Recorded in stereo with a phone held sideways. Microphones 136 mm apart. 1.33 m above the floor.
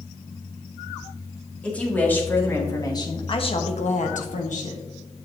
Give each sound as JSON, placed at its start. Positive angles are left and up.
{"t": 1.6, "sound": "a woman speaking", "side_deg": 10, "distance_m": 2.5}